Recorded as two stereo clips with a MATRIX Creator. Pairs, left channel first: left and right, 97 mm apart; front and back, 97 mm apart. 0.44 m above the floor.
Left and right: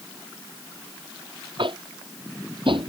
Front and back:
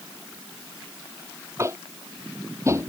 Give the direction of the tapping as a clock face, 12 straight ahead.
4 o'clock.